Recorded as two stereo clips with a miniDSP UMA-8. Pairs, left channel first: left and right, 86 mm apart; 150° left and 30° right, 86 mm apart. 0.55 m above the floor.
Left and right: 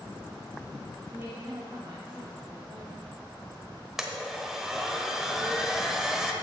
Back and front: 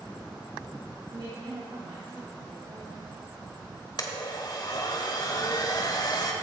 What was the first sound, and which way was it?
A woman speaking, 30° right.